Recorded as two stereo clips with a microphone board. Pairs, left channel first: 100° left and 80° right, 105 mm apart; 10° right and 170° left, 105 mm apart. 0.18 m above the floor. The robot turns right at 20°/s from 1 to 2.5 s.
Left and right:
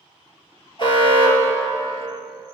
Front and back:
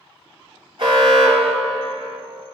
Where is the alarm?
140° left, 2.5 m; by 2.2 s 160° left, 2.5 m.